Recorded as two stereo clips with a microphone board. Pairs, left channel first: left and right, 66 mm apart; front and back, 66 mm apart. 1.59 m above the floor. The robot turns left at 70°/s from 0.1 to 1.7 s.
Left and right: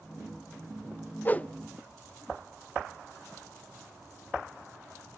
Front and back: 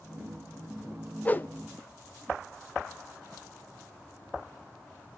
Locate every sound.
1.2 s a whoosh: 50° left, 0.5 m; by 1.5 s 30° left, 0.5 m